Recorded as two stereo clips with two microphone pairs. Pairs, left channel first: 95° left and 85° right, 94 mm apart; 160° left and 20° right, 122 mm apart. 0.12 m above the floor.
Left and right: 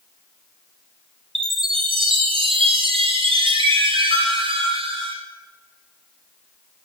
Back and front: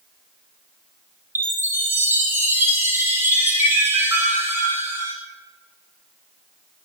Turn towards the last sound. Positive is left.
turn(degrees=-95)